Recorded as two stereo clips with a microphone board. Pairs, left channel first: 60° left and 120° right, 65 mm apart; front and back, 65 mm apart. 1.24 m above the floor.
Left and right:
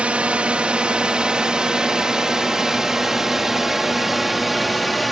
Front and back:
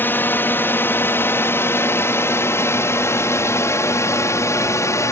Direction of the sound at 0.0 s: 50° right.